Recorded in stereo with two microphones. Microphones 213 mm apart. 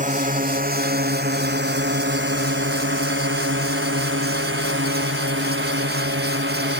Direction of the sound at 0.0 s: 40° right (ahead or behind).